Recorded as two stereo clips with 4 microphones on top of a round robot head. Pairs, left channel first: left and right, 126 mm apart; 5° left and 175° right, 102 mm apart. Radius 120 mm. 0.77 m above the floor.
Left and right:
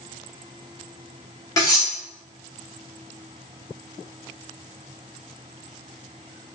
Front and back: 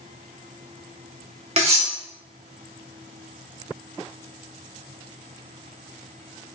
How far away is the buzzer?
I don't hear a buzzer.